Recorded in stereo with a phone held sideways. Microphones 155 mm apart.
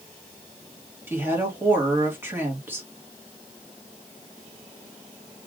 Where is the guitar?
I don't hear a guitar.